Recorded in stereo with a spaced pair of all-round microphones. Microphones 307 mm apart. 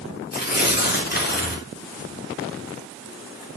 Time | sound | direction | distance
0.3 | tearing paper | 30° left (ahead or behind) | 3 m